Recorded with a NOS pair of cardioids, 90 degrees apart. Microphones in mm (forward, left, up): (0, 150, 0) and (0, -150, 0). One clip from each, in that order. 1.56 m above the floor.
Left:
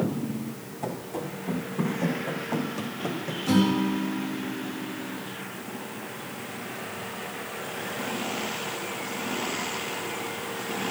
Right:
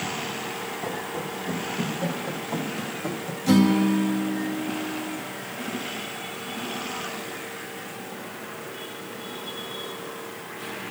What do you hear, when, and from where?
0.8 s running footsteps: 15° left, 5.5 m; by 3.4 s 10° left, 3.5 m
3.5 s a guitar: 45° right, 2.5 m